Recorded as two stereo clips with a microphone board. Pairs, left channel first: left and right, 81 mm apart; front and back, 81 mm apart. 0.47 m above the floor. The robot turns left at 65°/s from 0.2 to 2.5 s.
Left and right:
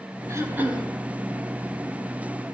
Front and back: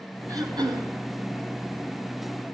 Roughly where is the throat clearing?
Behind right.